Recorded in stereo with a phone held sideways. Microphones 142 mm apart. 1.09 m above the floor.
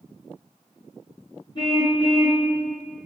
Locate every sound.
1.6 s a car horn: 35° left (ahead or behind), 6.5 m